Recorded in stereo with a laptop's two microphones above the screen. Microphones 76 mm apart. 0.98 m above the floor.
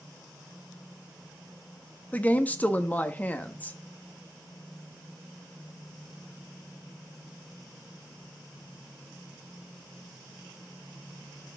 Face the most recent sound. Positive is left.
turn(degrees=20)  # may be behind; listen again after turning